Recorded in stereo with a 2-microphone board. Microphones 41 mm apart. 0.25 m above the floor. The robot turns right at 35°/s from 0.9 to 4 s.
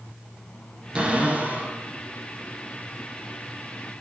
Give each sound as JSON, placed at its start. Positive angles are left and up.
{"t": 0.9, "sound": "a cupboard door", "side_deg": -25, "distance_m": 1.8}